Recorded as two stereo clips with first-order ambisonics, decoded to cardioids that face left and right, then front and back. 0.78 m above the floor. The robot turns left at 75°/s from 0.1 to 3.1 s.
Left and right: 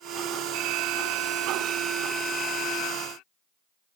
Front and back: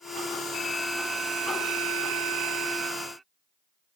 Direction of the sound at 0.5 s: 65° right.